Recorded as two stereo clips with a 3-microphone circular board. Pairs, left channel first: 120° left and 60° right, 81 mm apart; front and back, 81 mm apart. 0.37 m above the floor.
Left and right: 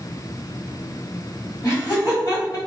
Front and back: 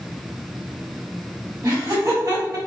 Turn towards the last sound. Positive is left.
turn(degrees=150)